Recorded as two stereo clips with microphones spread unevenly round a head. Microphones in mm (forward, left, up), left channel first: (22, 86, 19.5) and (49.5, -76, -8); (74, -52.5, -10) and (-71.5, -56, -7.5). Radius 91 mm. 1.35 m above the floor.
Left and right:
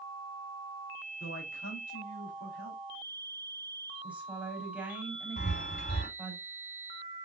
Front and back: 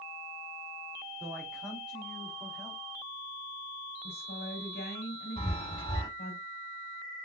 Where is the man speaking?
95° left, 3.5 m.